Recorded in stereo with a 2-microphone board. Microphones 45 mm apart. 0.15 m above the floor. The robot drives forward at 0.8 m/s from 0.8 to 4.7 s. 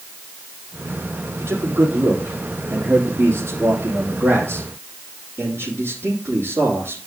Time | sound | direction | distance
1.4 | a man speaking | 70° right (ahead or behind) | 4.5 m